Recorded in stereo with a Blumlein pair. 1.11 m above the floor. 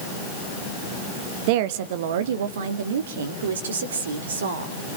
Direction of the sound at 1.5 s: 45° right.